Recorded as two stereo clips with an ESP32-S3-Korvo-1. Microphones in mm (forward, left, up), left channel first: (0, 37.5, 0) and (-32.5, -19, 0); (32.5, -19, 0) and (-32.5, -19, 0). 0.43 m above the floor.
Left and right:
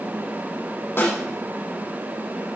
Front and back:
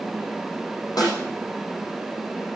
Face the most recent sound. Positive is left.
turn(degrees=5)